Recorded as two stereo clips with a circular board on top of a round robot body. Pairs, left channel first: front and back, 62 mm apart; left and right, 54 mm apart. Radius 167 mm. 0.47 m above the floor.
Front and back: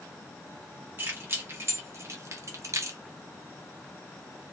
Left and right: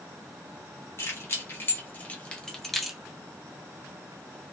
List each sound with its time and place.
1.0 s keys jangling: 130° left, 1.5 m; by 3.0 s 170° right, 0.9 m